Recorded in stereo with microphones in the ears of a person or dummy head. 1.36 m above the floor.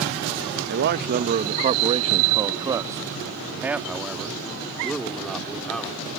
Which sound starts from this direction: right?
A man speaking, at 0.7 s.